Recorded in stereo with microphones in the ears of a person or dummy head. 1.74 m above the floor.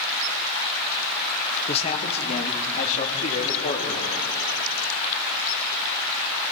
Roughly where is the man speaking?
Left.